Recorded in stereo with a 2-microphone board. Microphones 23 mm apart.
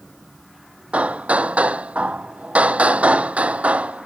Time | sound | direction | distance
0.9 | hammering | 75° right (ahead or behind) | ?